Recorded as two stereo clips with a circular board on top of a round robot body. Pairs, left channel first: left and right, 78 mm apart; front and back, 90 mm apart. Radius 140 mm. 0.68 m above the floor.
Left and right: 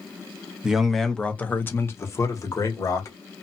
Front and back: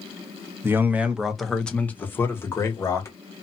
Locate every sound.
0.6 s a man speaking: 160° right, 0.8 m; by 3.1 s 50° left, 1.4 m